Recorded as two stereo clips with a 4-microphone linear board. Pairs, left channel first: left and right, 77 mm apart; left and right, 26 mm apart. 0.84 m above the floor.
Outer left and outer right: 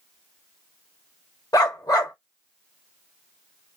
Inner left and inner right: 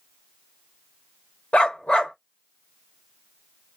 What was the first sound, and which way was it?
A dog barking, 55° left (ahead or behind).